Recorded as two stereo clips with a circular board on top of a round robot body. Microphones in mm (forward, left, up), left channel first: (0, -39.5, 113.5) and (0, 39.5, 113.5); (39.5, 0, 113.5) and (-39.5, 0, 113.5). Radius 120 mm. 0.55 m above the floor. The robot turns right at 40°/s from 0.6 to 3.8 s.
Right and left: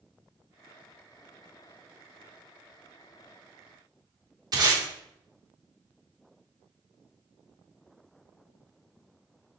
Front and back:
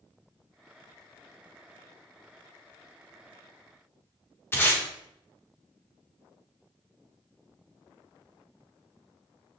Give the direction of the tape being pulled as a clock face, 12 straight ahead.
10 o'clock.